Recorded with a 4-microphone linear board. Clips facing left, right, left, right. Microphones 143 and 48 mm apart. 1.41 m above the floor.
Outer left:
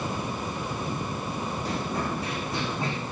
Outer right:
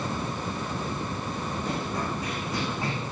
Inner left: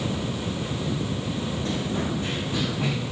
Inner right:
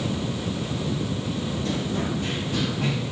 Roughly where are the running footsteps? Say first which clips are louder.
Outer left 1 dB, inner right 1 dB; left.